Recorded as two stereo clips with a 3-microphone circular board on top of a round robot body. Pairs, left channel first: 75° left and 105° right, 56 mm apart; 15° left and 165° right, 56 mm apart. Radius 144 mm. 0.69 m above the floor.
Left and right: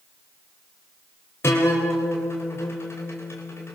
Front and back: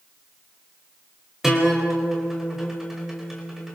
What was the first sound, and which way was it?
A guitar, 110° left.